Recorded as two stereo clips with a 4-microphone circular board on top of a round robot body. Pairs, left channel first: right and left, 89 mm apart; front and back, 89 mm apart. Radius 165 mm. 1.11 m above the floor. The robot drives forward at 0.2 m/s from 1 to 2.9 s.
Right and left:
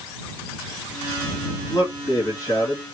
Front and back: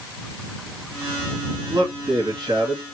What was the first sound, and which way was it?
A man speaking, 135° right.